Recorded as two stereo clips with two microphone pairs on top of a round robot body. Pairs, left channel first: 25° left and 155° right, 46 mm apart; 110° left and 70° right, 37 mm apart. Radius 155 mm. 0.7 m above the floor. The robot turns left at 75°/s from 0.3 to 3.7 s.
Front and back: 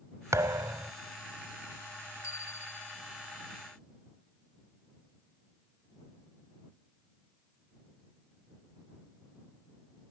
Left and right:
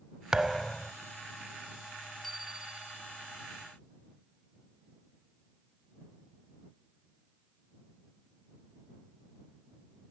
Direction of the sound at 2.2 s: 30° left.